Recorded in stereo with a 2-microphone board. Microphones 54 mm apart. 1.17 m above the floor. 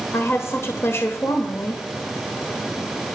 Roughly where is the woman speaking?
Left.